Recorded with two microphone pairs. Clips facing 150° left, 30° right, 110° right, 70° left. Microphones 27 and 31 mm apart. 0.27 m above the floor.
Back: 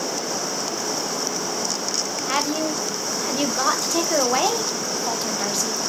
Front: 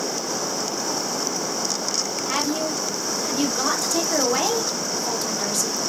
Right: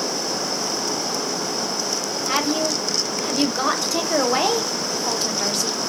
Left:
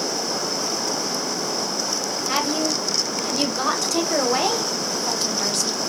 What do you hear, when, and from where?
2.3 s a woman speaking: 175° right, 1.0 m